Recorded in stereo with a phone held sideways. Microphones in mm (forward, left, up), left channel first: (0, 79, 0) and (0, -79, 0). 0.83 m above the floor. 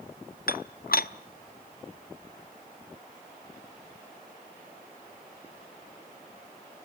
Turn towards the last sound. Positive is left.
turn(degrees=70)  # may be behind; listen again after turning